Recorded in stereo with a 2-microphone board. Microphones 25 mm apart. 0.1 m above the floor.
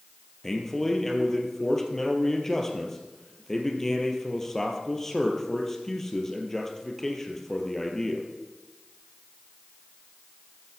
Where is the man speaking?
15° left (ahead or behind), 3 m.